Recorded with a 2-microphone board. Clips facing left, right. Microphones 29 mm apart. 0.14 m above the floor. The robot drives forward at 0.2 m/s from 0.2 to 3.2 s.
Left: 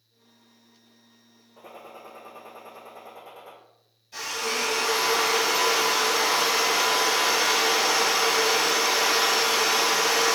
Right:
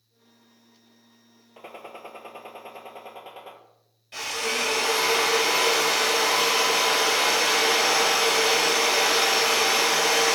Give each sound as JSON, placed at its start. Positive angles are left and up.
{"t": 1.6, "sound": "a gunshot", "side_deg": -65, "distance_m": 0.7}
{"t": 4.1, "sound": "a drill", "side_deg": -55, "distance_m": 2.0}